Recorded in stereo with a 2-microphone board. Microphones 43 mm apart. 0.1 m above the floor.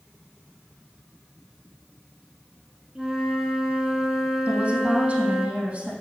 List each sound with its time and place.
3.0 s a flute: 10° right (ahead or behind), 2.0 m
4.5 s a woman speaking: 30° right (ahead or behind), 3.5 m